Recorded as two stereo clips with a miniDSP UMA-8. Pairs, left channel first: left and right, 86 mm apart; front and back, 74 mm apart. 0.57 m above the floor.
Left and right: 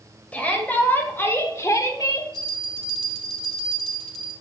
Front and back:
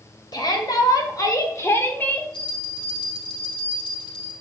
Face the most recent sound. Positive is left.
turn(degrees=5)